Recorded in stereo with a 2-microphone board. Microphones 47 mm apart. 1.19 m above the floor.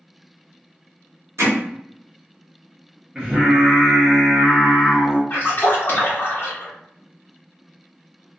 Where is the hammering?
70° right (ahead or behind), 0.9 m.